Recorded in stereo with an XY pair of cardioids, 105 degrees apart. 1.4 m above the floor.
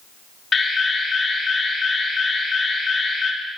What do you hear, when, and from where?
0.5 s an alarm: 35° left, 2 m